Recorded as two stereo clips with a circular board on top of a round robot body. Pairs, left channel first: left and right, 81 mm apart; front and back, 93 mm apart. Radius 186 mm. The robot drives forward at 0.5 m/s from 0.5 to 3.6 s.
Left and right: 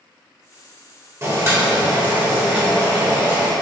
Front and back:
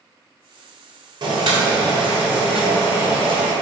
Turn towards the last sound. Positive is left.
turn(degrees=-160)